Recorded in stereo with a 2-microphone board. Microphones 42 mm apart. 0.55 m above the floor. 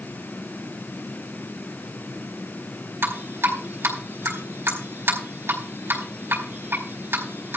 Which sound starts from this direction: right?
Dripping, at 3.0 s.